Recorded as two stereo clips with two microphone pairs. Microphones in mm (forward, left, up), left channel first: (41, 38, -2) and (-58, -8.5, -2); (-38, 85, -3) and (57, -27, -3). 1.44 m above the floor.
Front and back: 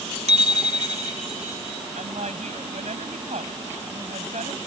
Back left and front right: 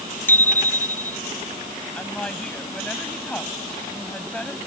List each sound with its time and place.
0.3 s a bicycle bell: 150° right
1.9 s a woman speaking: 145° right